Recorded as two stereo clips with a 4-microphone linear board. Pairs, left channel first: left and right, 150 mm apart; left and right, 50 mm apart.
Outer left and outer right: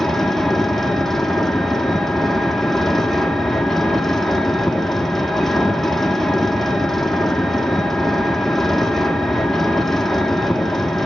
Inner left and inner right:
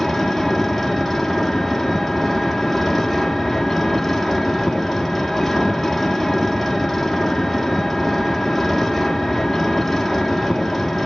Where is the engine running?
Centre (ahead or behind), 1.0 m.